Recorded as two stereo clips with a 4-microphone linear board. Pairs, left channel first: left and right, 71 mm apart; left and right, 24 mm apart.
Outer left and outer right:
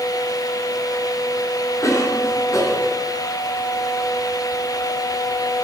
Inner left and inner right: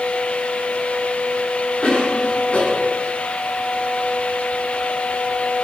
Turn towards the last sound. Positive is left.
turn(degrees=45)  # may be behind; listen again after turning